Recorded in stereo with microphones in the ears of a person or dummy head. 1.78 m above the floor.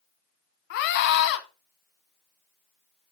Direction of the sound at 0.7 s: 55° left (ahead or behind).